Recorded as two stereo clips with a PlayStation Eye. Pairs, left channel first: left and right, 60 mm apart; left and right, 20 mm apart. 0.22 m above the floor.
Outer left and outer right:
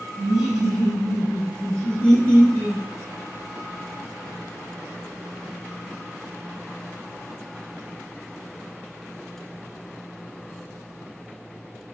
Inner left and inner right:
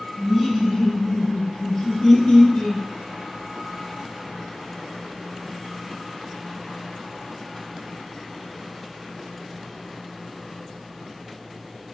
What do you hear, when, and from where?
0.2 s laughter: 10° right (ahead or behind), 0.9 m; by 2.8 s 20° left (ahead or behind), 1.8 m